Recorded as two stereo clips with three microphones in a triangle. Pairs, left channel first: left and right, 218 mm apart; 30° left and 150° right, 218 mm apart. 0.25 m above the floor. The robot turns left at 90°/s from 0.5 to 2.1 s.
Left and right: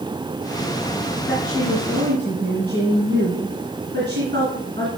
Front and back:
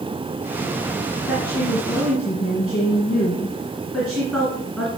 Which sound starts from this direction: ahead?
A woman speaking, at 1.3 s.